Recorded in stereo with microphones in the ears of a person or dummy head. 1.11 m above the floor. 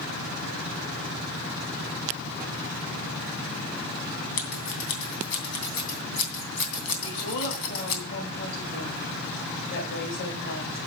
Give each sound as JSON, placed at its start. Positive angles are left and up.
{"t": 4.4, "sound": "scissors", "side_deg": 75, "distance_m": 2.5}
{"t": 7.0, "sound": "a woman speaking", "side_deg": 60, "distance_m": 5.5}